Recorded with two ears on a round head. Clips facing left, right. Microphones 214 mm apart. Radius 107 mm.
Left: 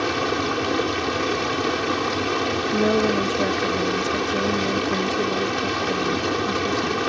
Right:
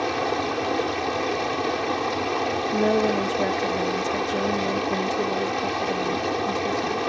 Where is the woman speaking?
10° left (ahead or behind).